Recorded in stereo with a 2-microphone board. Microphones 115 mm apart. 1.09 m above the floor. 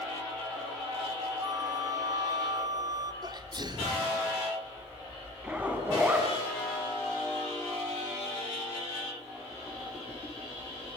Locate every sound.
1.4 s a flute: 35° right (ahead or behind), 1.9 m
3.2 s a sneeze: 40° right (ahead or behind), 3 m
5.4 s a zipper: 15° right (ahead or behind), 6 m